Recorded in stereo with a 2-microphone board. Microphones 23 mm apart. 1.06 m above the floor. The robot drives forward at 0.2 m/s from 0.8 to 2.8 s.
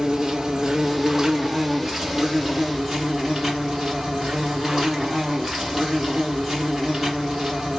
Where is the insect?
25° right (ahead or behind), 0.8 m; by 7.8 s 20° right (ahead or behind), 1.2 m.